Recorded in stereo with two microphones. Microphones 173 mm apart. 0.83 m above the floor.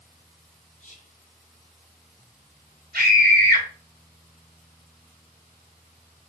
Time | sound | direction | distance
0.8 | whispering | 50° left (ahead or behind) | 0.5 m
2.9 | a scream | 70° right (ahead or behind) | 2.5 m